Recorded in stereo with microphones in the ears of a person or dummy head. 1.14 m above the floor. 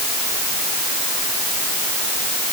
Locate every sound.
Only background noise.